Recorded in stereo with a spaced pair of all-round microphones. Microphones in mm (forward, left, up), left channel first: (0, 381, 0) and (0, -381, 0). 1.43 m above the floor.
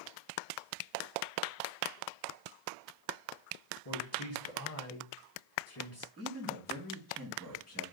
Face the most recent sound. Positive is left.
turn(degrees=10)  # may be behind; listen again after turning